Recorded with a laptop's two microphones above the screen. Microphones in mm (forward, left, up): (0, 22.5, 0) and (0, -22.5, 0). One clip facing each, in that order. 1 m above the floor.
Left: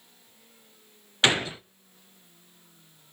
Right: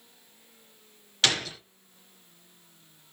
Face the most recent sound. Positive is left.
turn(degrees=20)  # may be behind; listen again after turning